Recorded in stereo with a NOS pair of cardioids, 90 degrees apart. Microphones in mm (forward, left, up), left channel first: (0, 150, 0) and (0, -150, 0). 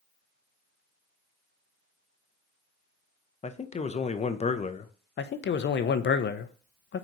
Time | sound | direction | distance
3.4 | a man speaking | 20° left | 0.6 m
5.2 | a man speaking | 40° left | 0.6 m